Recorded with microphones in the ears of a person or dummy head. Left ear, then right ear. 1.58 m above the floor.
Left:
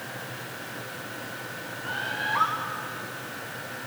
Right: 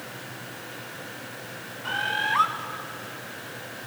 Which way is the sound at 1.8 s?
35° right (ahead or behind).